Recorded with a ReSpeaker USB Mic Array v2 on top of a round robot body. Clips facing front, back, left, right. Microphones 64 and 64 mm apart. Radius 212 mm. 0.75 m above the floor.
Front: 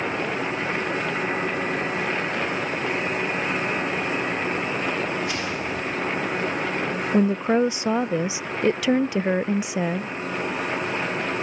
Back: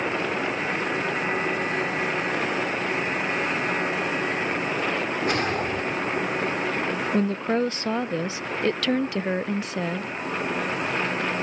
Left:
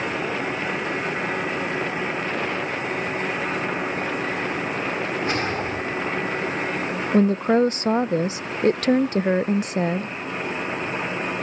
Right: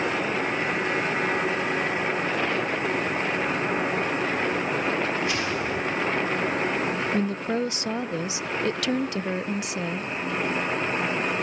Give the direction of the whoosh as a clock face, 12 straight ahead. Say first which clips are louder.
Back 3 dB, left 2 dB; 7 o'clock.